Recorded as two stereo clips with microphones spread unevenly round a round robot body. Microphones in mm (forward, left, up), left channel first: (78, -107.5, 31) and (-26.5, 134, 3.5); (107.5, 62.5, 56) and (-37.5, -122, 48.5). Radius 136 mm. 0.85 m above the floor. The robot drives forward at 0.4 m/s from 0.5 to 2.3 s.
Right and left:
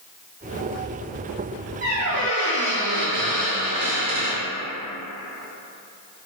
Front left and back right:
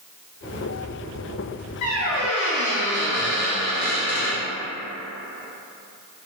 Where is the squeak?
80° left, 1.4 m; by 4.4 s 85° left, 1.4 m.